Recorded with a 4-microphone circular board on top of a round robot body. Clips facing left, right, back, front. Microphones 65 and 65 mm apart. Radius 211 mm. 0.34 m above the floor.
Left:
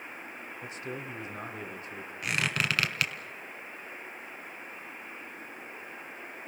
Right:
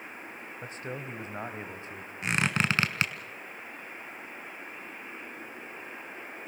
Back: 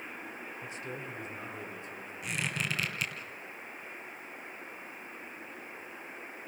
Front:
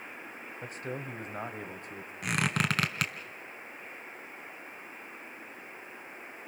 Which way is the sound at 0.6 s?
40° right.